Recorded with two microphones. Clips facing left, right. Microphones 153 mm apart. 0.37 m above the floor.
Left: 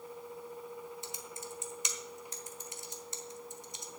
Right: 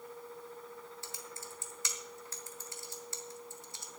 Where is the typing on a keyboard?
20° left (ahead or behind), 1.2 m.